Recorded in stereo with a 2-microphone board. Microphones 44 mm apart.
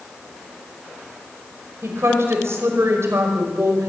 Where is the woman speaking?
85° right, 5 m.